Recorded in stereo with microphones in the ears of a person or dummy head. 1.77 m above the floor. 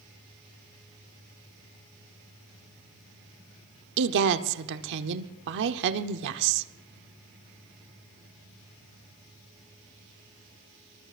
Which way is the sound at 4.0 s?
65° right (ahead or behind).